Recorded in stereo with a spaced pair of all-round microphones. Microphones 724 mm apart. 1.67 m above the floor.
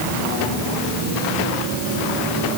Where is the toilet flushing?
No toilet flushing in this recording.